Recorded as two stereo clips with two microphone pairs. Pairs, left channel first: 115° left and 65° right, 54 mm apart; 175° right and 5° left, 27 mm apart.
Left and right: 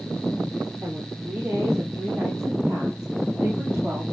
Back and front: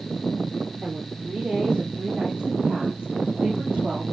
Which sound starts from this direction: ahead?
A woman speaking, at 0.8 s.